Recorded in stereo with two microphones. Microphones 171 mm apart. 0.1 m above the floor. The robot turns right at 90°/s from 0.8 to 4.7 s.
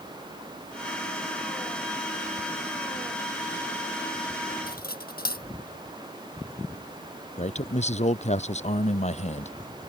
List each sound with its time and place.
4.7 s cutlery clinking: 70° left (ahead or behind)
7.4 s a man speaking: 45° left (ahead or behind)